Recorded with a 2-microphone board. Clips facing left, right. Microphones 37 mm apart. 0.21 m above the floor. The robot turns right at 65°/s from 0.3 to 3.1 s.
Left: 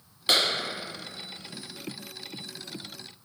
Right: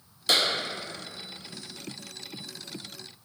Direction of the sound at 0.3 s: 35° left (ahead or behind).